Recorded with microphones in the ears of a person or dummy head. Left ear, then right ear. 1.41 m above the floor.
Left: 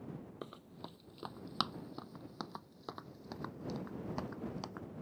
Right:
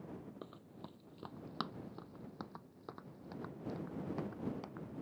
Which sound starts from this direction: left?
Running footsteps, at 0.4 s.